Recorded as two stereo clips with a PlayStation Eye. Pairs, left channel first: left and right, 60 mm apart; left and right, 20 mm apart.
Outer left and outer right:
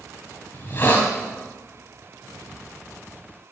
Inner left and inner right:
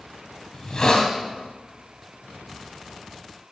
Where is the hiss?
35° left (ahead or behind), 2 m.